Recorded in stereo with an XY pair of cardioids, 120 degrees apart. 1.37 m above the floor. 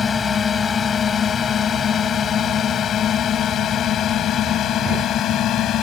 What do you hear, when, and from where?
0.0 s a drone: 30° left; by 5.8 s 60° left